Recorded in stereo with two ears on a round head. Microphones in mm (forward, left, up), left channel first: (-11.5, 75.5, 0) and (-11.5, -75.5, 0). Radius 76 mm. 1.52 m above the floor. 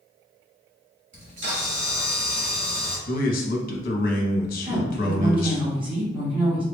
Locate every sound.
1.1 s a camera shutter: 40° right (ahead or behind), 1.5 m
3.1 s a man speaking: 55° left (ahead or behind), 0.8 m
4.6 s a woman speaking: 30° right (ahead or behind), 1.7 m